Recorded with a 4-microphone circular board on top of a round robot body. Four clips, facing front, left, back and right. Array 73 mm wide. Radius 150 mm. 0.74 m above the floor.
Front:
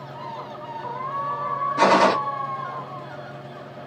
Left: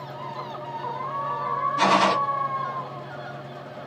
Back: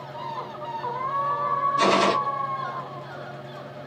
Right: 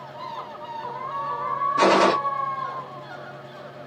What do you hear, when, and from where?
1.8 s a gunshot: 50° right, 0.6 m